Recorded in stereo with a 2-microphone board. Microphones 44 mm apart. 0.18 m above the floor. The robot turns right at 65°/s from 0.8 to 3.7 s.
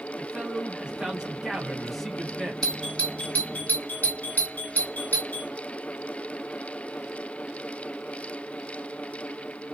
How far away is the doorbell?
About 1.8 m.